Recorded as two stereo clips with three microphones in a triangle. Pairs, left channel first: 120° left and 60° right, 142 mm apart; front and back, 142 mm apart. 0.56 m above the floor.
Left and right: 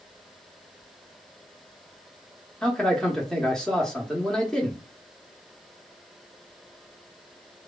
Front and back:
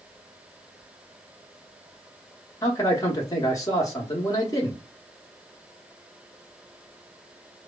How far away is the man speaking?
About 0.6 m.